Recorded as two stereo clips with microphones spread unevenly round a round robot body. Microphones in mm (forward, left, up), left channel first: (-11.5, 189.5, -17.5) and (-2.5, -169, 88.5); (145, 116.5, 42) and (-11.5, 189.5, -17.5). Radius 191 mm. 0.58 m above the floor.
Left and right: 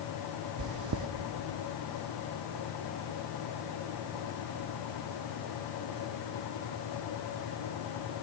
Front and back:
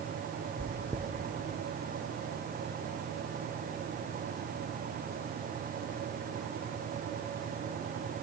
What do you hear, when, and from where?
0.6 s chewing: 140° right, 0.6 m